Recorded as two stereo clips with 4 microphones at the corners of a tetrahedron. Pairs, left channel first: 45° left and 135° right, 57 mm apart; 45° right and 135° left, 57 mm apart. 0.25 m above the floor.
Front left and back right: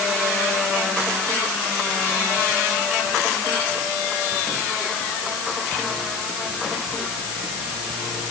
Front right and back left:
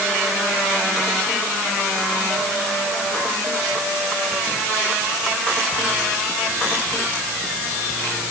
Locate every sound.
Only background noise.